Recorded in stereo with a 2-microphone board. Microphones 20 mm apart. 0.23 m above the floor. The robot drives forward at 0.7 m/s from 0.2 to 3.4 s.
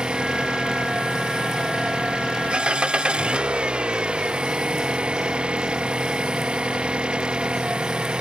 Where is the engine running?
60° right (ahead or behind).